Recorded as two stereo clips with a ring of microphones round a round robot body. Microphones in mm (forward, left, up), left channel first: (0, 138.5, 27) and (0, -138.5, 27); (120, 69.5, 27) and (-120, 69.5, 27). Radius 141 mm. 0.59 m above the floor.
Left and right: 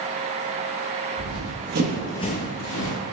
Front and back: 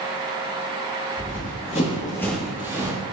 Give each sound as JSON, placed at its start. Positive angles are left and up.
{"t": 1.2, "sound": "running footsteps", "azimuth_deg": -65, "distance_m": 1.3}